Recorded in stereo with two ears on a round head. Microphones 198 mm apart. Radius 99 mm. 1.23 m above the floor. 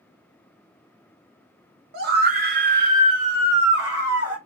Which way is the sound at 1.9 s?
45° right (ahead or behind).